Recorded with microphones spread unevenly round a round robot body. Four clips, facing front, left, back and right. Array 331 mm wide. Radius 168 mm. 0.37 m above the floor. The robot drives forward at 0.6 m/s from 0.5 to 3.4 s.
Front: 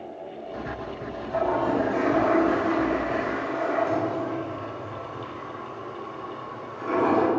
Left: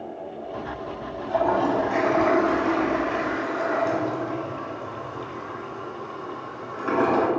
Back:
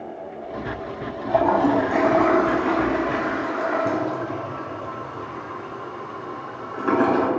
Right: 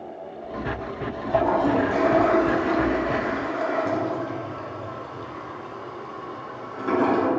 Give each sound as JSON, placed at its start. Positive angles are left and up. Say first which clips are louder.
{"t": 1.2, "sound": "a toilet flushing", "louder": "right 1 dB, back 6 dB", "azimuth_deg": -170, "distance_m": 1.2}